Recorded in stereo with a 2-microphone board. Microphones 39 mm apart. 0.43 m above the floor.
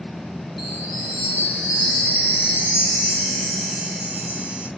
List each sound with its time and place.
0.6 s a chime: 5° right (ahead or behind), 5.5 m